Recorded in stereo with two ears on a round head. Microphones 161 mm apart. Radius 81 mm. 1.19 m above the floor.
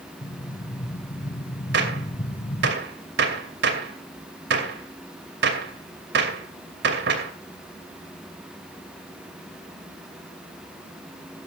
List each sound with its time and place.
0.2 s an explosion: 20° left (ahead or behind), 0.9 m
1.7 s a gunshot: 65° right (ahead or behind), 2.5 m